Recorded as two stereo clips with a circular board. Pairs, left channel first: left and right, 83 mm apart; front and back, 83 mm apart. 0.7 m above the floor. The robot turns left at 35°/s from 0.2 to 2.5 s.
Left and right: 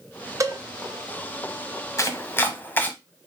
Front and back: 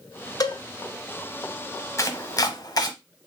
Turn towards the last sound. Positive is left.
turn(degrees=25)